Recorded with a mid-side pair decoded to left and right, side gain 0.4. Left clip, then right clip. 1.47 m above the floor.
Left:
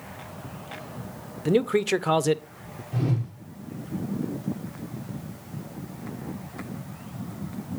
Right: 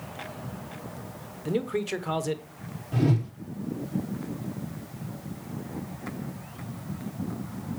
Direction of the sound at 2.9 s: 70° right.